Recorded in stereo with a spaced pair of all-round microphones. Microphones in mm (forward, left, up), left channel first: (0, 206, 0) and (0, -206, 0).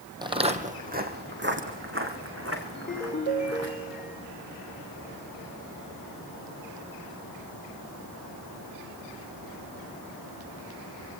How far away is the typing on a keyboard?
I don't hear typing on a keyboard.